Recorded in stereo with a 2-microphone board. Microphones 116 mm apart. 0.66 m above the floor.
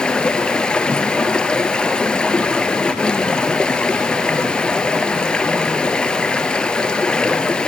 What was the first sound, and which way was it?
Running water, 5° left (ahead or behind).